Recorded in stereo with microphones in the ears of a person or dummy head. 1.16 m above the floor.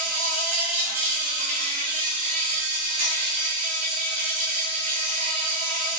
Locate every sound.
0.0 s an insect: 40° right (ahead or behind), 0.7 m